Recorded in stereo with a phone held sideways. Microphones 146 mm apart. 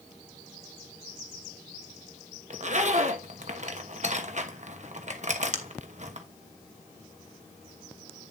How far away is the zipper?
About 1.1 m.